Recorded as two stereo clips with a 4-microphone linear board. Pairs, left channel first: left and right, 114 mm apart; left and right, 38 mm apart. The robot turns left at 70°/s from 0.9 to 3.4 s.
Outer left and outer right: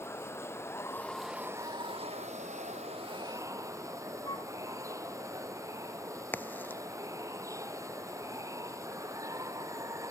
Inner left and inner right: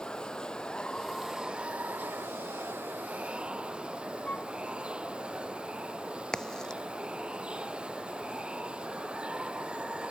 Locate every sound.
0.0 s running water: 20° left; by 10.1 s 155° right
4.2 s a flute: 35° left (ahead or behind)
6.3 s a crack: 15° left (ahead or behind)